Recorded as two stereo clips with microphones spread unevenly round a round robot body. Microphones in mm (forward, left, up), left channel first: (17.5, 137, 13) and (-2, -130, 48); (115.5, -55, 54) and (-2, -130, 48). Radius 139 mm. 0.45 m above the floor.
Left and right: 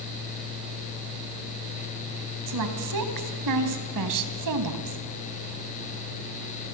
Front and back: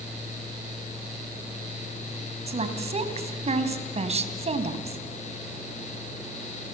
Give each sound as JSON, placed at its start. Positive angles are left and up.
{"t": 2.5, "sound": "a woman speaking", "azimuth_deg": -110, "distance_m": 3.5}